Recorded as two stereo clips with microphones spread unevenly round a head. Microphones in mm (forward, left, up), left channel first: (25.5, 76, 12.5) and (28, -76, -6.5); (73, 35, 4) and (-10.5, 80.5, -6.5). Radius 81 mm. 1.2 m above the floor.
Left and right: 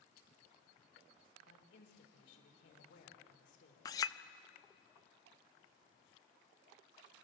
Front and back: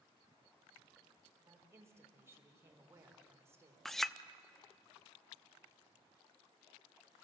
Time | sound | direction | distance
1.4 | a woman speaking | 90° left | 3.5 m
3.9 | a clink | 50° left | 0.5 m